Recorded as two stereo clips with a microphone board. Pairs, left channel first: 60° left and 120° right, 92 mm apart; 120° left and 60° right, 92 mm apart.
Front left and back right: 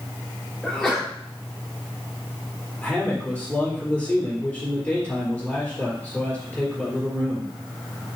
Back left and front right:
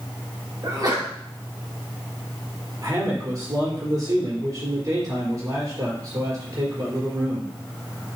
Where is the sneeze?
20° right, 3.5 m.